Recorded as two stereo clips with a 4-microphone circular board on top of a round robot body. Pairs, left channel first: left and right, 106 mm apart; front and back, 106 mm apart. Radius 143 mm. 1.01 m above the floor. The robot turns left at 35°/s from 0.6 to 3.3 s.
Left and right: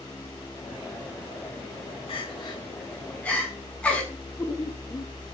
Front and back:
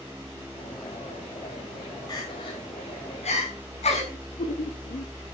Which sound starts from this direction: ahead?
Laughter, at 4.1 s.